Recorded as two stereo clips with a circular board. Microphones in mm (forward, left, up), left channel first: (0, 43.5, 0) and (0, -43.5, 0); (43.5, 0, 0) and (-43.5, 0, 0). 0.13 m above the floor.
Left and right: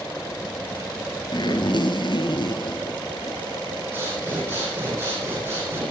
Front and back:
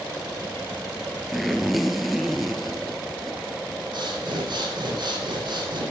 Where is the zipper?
90° left, 0.8 m.